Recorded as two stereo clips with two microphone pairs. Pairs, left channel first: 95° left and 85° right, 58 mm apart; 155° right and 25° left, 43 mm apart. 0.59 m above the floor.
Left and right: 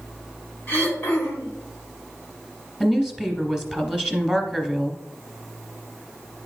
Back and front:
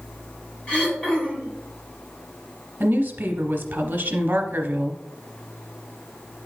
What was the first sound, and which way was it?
Throat clearing, 150° left.